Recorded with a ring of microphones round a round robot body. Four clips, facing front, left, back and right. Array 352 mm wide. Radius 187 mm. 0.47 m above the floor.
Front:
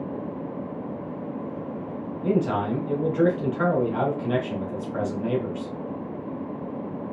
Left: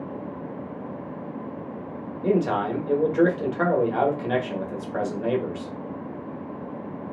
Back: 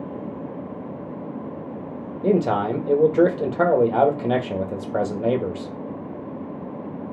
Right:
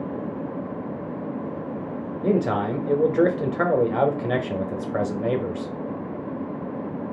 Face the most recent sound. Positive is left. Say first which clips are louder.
# even, back 4 dB
turn(degrees=-155)